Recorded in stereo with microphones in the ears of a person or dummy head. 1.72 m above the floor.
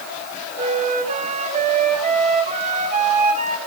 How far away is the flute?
About 1.6 m.